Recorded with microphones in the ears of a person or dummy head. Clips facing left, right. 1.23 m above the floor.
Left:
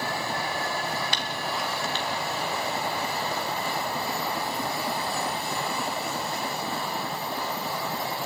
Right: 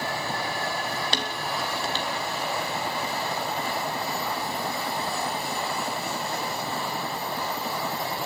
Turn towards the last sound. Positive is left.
turn(degrees=-35)  # may be behind; listen again after turning